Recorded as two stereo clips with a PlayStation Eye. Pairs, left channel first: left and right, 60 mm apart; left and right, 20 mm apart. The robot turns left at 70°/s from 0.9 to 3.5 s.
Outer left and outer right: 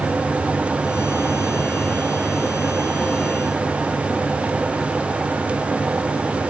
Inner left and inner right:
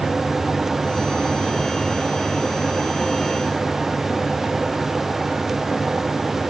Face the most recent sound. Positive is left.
No sound to turn to.